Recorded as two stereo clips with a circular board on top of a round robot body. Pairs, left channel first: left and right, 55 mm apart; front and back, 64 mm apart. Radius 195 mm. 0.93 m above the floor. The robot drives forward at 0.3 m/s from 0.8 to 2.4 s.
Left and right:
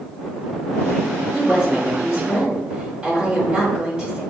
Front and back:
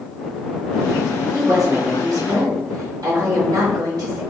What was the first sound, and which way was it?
A woman speaking, 175° right.